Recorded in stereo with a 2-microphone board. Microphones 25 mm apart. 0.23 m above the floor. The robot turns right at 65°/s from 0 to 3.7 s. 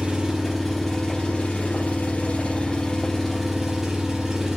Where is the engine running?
50° right, 4.5 m; by 4.6 s 170° right, 4.5 m.